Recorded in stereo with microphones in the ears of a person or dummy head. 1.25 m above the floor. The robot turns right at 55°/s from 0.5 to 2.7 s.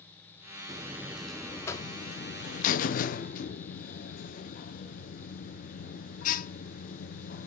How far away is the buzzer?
About 0.6 m.